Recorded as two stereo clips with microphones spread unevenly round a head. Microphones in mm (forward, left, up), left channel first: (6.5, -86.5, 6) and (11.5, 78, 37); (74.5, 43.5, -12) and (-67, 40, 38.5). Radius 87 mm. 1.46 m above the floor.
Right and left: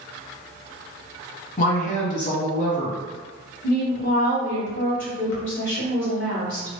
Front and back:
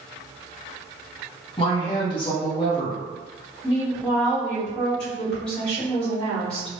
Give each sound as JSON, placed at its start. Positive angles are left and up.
{"t": 1.6, "sound": "a woman speaking", "azimuth_deg": -55, "distance_m": 1.1}
{"t": 3.6, "sound": "a woman speaking", "azimuth_deg": -85, "distance_m": 1.6}